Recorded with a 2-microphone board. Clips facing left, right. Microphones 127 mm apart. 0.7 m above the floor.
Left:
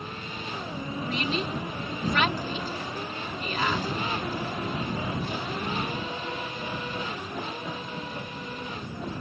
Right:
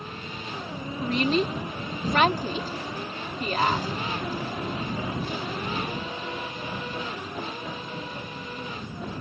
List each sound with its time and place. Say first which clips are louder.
1.0 s a woman speaking: right 7 dB; 45° right (ahead or behind)